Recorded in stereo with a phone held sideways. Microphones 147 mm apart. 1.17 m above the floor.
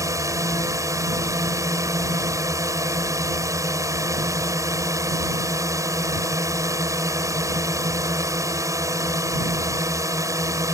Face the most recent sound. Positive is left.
turn(degrees=-20)  # may be behind; listen again after turning